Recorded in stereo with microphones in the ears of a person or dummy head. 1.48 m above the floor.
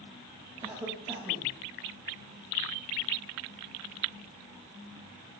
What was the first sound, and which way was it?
A cough, 10° right (ahead or behind).